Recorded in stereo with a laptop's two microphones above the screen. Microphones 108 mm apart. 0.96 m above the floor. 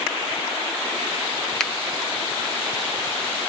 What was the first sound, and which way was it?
A finger snap, 5° left (ahead or behind).